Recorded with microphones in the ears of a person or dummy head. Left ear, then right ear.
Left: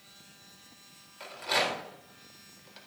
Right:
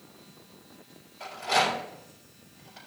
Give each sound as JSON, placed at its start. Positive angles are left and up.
{"t": 1.2, "sound": "a rattle", "side_deg": 20, "distance_m": 4.0}